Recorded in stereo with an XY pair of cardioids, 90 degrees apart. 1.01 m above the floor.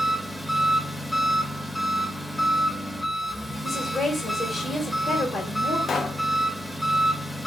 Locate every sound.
0.0 s an engine running: 5° left, 1.0 m
3.6 s a woman speaking: 30° left, 1.3 m
5.9 s a pop: 55° left, 0.6 m